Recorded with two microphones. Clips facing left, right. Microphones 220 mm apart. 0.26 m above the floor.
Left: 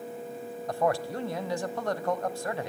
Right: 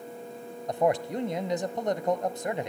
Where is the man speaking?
20° right (ahead or behind), 0.9 m.